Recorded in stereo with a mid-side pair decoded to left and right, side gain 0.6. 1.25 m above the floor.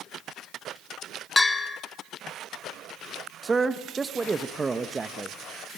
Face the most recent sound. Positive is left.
turn(degrees=-20)